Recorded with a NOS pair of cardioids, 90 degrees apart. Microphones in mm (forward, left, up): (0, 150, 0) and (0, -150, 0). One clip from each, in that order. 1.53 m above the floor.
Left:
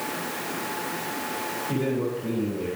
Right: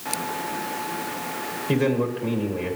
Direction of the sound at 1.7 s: 70° right.